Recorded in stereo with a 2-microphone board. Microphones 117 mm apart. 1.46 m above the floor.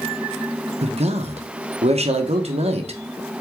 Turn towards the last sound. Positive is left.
turn(degrees=-65)  # may be behind; listen again after turning